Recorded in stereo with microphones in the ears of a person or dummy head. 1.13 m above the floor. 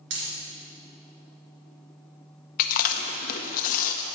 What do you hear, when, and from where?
0.1 s a dropped coin: 65° right (ahead or behind), 2.5 m
2.6 s chewing: 55° left (ahead or behind), 0.7 m